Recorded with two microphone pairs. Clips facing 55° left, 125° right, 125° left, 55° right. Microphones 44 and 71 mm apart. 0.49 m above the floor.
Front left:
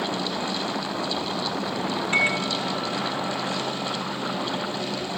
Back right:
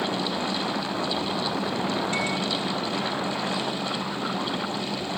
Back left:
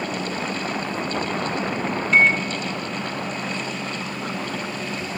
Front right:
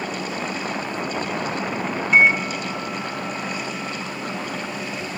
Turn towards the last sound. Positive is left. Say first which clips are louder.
# front left 4 dB, front right 2 dB
turn(degrees=20)